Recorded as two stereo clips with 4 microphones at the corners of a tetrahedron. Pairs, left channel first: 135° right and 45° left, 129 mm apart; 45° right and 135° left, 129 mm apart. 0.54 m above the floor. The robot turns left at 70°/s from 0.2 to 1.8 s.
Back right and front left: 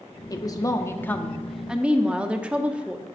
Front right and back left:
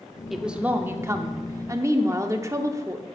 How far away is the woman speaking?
About 0.9 m.